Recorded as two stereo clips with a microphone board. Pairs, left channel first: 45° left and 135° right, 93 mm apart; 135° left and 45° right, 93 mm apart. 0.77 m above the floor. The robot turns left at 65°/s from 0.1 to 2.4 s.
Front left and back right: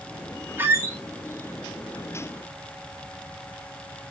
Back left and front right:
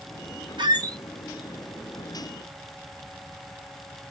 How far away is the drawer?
I don't hear a drawer.